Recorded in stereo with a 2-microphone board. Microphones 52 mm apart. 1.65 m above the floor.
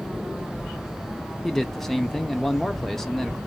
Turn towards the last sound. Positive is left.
turn(degrees=5)  # may be behind; listen again after turning